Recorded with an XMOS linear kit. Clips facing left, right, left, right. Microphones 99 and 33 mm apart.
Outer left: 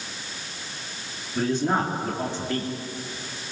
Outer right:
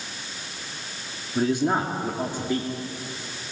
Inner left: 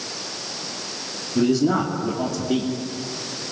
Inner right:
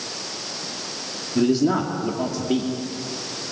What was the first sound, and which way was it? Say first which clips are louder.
A man speaking: outer right 1 dB, even; 15° right (ahead or behind).